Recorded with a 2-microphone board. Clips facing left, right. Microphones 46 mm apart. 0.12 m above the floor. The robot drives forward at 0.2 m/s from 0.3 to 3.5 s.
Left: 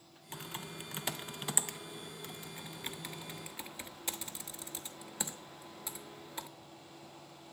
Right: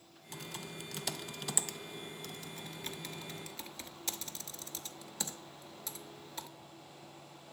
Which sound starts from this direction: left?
Typing on a keyboard, at 0.3 s.